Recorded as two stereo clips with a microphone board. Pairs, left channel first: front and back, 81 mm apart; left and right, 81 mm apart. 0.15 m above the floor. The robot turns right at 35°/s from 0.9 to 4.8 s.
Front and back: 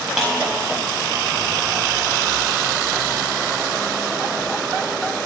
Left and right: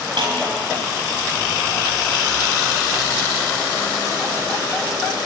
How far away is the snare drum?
About 4.5 m.